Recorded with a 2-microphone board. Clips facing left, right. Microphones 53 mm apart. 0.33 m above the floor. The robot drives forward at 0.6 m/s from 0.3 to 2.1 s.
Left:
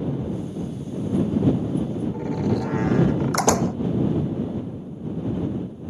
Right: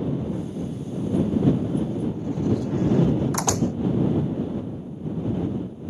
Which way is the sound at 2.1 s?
65° left (ahead or behind).